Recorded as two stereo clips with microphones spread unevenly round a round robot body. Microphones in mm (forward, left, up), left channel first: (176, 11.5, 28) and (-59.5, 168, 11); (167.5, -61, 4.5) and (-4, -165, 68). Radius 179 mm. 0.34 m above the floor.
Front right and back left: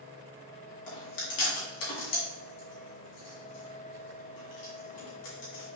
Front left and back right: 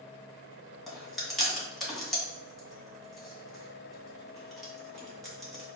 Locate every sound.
0.9 s chewing: 50° right, 2 m